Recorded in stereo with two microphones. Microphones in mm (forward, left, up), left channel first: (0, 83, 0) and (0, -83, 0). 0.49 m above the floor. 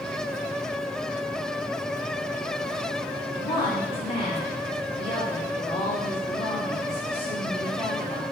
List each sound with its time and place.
3.3 s a woman speaking: 35° left (ahead or behind), 4.5 m